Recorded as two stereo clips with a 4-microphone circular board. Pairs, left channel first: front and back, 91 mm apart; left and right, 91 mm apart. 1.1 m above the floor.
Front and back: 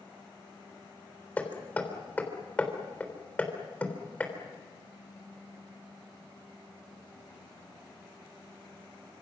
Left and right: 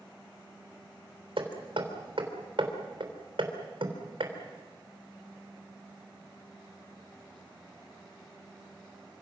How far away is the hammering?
About 3.5 m.